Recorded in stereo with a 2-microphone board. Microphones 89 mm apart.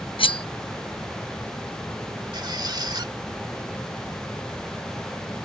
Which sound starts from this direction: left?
Cutlery clinking, at 0.2 s.